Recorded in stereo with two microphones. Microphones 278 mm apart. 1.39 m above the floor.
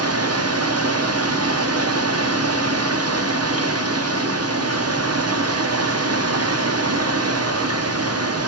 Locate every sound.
0.0 s running water: 70° right (ahead or behind), 0.8 m